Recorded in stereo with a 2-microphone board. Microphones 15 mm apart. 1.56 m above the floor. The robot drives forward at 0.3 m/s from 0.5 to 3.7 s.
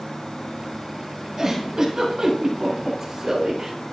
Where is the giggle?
30° right (ahead or behind), 6.5 m.